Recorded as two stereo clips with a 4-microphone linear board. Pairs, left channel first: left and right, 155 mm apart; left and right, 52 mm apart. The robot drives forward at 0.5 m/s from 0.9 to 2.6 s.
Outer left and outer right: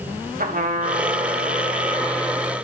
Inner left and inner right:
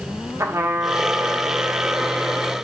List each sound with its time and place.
0.4 s a trumpet: 75° right (ahead or behind), 1.4 m; by 2.5 s 55° right (ahead or behind), 1.7 m